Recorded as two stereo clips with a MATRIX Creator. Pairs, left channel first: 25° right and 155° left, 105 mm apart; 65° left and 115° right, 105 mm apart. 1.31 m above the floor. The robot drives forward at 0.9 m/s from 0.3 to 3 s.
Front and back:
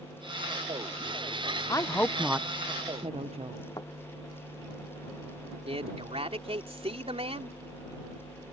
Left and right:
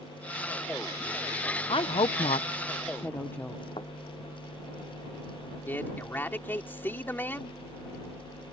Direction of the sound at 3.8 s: 30° left.